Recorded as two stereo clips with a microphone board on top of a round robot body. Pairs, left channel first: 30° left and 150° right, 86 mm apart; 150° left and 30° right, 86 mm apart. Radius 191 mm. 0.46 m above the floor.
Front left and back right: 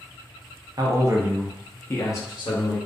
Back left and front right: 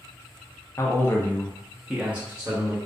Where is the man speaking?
165° right, 0.9 m; by 2.8 s 30° left, 1.1 m.